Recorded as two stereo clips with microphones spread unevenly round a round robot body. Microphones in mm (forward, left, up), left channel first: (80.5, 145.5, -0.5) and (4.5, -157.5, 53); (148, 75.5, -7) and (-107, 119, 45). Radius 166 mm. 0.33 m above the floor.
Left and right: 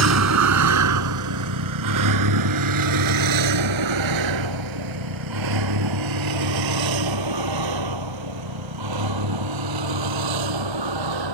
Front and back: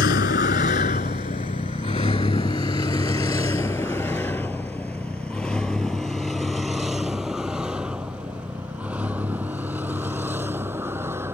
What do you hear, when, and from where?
0.0 s a vehicle: 65° right; by 11.3 s 105° right